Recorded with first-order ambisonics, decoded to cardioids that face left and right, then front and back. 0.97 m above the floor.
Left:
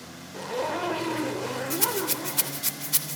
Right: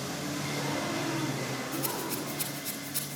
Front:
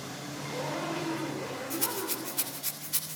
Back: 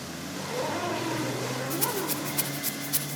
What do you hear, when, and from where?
0.3 s a zipper: 110° left, 3.5 m
1.7 s a rattle: 100° left, 3 m